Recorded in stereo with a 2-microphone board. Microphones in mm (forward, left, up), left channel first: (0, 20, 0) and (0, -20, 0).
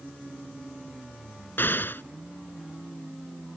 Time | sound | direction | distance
1.6 | an explosion | 65° left (ahead or behind) | ?